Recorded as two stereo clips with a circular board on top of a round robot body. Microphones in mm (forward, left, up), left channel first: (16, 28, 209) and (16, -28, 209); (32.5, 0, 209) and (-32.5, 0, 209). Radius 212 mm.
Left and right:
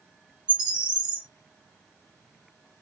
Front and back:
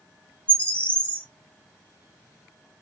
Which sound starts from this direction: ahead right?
A bird, at 0.5 s.